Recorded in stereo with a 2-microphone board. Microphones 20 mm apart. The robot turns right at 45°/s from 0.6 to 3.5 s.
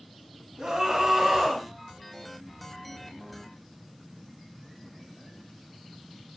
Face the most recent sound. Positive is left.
turn(degrees=85)